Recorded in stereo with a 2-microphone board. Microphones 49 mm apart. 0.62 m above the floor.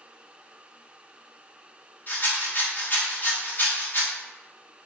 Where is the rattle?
40° left (ahead or behind), 1.1 m.